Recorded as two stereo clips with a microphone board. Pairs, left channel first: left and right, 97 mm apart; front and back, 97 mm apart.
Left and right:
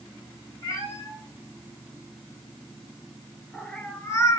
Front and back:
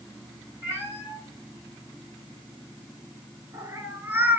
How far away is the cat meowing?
About 1.6 m.